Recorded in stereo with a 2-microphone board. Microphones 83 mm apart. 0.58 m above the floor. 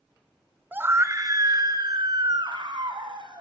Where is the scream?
20° right (ahead or behind), 1.5 m; by 3.4 s 70° right (ahead or behind), 4.5 m.